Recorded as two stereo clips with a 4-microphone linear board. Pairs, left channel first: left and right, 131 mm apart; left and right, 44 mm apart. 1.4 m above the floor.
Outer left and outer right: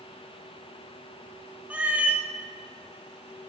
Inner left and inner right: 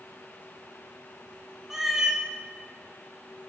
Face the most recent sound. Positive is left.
turn(degrees=-10)  # may be behind; listen again after turning